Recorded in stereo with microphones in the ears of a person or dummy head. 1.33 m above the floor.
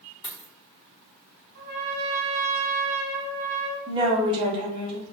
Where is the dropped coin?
30° left (ahead or behind), 0.8 m.